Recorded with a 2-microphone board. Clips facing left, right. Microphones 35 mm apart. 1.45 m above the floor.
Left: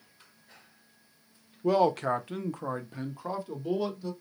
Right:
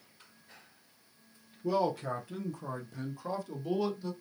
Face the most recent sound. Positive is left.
turn(degrees=10)  # may be behind; listen again after turning